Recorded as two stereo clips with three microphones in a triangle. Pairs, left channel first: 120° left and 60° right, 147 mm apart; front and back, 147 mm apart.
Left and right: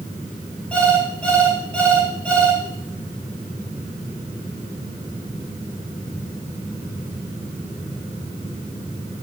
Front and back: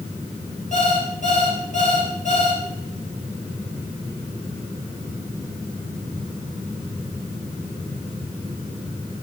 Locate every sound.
0.7 s an alarm clock: 35° left, 5 m